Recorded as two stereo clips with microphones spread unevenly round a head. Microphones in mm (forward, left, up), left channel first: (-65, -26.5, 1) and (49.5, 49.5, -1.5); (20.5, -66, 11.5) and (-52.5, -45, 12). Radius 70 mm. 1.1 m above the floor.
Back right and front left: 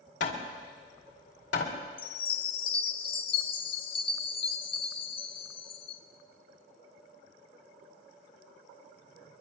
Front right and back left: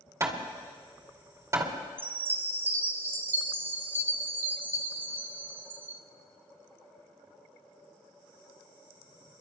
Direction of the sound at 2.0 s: 155° right.